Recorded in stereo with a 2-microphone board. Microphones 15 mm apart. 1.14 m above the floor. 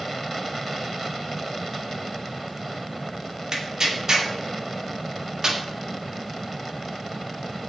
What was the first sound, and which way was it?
Tearing paper, 35° right (ahead or behind).